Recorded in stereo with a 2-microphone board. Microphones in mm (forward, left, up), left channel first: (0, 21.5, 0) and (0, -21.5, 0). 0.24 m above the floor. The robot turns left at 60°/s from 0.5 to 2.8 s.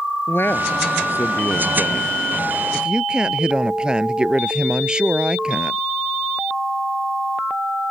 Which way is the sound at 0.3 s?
115° left.